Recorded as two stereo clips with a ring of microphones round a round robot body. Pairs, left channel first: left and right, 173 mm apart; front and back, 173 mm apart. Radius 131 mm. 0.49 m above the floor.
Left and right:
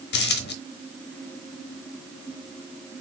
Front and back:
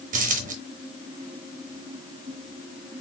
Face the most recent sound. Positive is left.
turn(degrees=125)